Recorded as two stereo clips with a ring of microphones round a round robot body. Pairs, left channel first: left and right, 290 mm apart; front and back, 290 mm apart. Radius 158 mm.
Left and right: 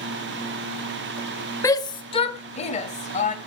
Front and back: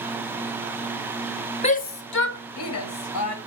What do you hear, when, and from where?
1.6 s a shout: 25° left, 0.9 m